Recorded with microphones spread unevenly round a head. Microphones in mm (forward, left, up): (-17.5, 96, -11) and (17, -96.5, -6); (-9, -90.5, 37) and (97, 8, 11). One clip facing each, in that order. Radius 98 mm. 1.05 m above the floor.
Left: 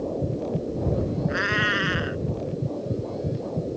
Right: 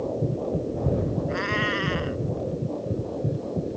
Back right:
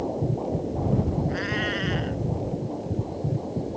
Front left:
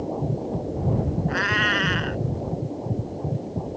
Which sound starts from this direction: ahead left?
A cat meowing, at 1.3 s.